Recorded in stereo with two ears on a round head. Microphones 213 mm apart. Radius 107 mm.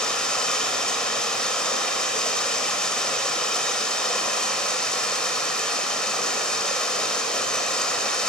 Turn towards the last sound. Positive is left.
turn(degrees=5)  # may be behind; listen again after turning